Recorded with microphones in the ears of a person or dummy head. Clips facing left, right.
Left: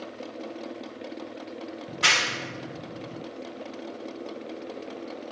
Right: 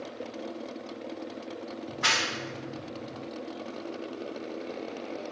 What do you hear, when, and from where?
1.9 s a clap: 45° left (ahead or behind), 1.2 m